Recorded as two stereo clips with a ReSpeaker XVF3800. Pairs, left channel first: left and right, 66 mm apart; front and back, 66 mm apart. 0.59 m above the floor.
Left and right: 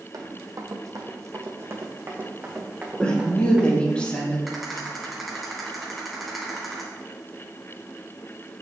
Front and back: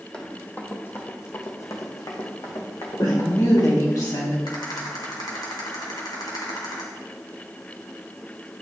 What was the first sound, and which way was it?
Running footsteps, 75° right.